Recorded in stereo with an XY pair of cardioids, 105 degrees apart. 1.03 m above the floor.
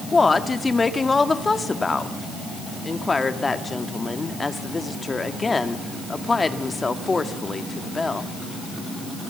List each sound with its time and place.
0.1 s a woman speaking: 25° left, 1.8 m